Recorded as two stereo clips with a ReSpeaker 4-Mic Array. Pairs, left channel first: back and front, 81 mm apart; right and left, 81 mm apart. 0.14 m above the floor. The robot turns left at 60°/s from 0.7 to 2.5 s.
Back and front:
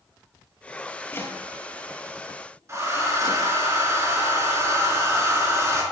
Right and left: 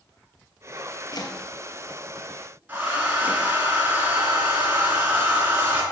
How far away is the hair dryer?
About 2 m.